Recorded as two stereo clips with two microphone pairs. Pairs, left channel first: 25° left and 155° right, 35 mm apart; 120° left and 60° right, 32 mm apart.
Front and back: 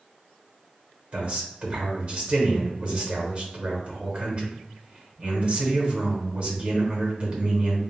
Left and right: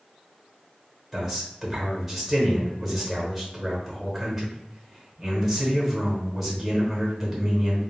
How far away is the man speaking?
About 1.1 m.